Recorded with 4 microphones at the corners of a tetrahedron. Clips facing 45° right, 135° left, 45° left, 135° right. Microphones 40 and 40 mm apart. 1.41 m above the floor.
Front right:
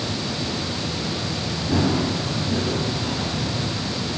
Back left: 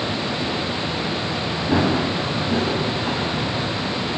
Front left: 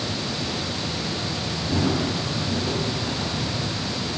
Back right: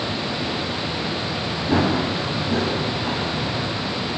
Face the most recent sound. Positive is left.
turn(degrees=180)